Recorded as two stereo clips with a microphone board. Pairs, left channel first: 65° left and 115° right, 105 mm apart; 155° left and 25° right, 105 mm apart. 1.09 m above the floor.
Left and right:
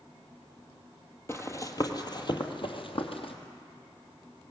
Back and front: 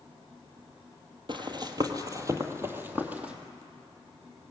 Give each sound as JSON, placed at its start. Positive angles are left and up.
{"t": 1.3, "sound": "running footsteps", "azimuth_deg": 5, "distance_m": 2.0}